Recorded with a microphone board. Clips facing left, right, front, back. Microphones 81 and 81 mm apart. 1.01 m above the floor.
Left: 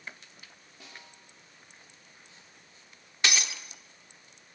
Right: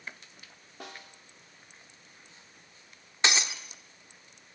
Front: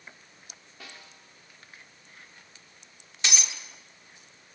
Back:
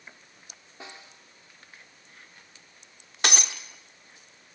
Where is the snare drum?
115° right, 2 m.